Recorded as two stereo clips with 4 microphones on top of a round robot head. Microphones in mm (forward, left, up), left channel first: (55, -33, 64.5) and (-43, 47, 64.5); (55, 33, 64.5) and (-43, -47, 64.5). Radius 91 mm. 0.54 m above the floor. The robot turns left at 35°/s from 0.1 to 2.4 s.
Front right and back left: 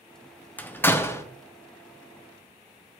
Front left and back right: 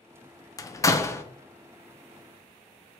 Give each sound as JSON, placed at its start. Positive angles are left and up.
{"t": 0.6, "sound": "a door slam", "azimuth_deg": 20, "distance_m": 0.6}